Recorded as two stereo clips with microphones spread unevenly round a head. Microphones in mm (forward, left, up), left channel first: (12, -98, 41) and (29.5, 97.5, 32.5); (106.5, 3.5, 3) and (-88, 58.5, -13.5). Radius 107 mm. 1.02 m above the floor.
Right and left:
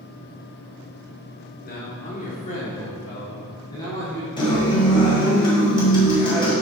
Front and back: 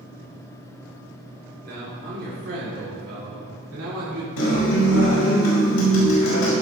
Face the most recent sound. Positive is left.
turn(degrees=-30)